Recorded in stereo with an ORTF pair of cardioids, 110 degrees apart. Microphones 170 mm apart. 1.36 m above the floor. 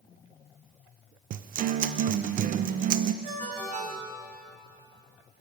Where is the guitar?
55° right, 0.8 m.